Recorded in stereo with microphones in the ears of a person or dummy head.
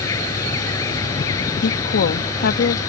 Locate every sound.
0.0 s an insect: 20° left (ahead or behind)
1.6 s a woman speaking: 65° left (ahead or behind)